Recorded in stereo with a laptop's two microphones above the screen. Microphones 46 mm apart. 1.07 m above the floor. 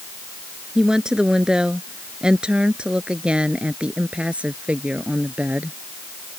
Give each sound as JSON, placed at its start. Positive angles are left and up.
{"t": 0.8, "sound": "a woman speaking", "side_deg": -15}